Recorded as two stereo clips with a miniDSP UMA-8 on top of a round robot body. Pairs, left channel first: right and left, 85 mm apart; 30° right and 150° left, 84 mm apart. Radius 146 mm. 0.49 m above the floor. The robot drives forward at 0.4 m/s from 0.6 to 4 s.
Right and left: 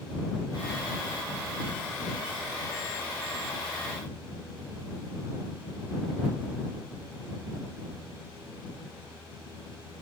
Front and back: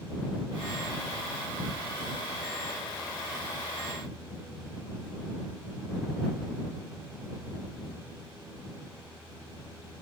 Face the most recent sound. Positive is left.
No sound to turn to.